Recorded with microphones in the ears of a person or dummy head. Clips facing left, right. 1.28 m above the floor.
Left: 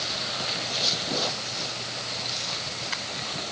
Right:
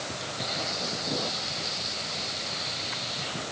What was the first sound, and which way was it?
Only background noise.